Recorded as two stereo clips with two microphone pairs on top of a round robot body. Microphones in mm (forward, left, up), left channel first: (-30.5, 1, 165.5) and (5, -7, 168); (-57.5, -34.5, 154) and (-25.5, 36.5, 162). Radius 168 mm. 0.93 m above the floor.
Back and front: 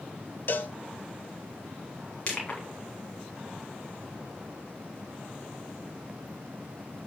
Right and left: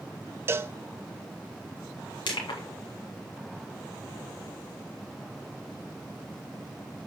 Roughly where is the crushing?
Behind right.